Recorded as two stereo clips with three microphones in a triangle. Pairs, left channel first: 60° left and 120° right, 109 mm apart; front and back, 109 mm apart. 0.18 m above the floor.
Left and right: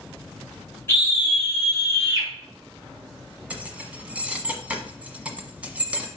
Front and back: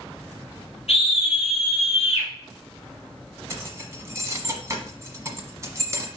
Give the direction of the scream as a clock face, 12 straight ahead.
12 o'clock.